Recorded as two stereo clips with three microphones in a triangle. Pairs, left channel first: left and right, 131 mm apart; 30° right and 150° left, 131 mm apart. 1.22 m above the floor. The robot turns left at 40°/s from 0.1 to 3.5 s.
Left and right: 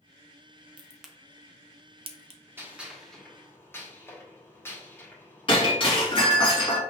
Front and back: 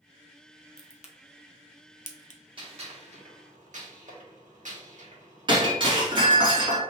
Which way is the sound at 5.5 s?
120° left.